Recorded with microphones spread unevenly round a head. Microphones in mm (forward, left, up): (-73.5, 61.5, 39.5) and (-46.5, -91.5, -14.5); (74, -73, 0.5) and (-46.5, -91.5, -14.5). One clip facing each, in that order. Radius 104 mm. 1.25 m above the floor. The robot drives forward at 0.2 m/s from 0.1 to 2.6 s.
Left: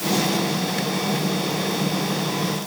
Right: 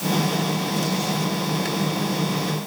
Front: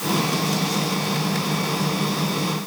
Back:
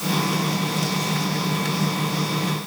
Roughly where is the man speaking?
No man speaking in this recording.